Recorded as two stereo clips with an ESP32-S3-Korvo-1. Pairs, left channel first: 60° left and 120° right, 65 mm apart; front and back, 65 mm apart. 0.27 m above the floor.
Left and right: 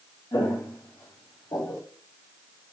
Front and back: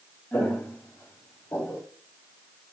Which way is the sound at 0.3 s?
65° left.